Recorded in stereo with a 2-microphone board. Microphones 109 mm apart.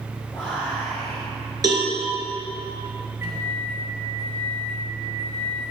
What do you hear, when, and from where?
0.3 s whispering: 15° right (ahead or behind), 3.5 m
1.6 s a cowbell: 35° right (ahead or behind), 2.5 m
3.2 s a microwave: 25° right (ahead or behind), 2.5 m